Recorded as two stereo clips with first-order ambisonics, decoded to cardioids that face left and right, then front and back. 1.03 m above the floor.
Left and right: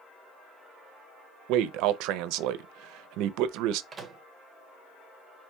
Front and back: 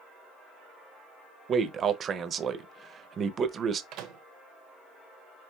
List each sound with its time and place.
1.5 s a man speaking: 115° right, 0.5 m
3.9 s a microwave: 155° right, 0.8 m